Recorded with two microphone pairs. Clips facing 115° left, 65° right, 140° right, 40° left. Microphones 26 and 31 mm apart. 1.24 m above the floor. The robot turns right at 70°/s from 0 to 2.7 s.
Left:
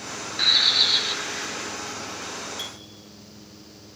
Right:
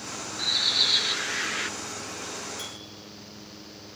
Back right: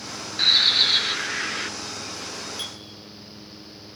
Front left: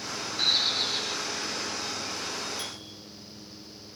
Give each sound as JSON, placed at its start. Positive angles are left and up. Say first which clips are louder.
{"t": 0.4, "sound": "a bird", "louder": "left 5 dB, back right 8 dB", "azimuth_deg": 160, "distance_m": 0.7}
{"t": 2.6, "sound": "a clink", "louder": "left 3 dB, back right 4 dB", "azimuth_deg": 165, "distance_m": 5.0}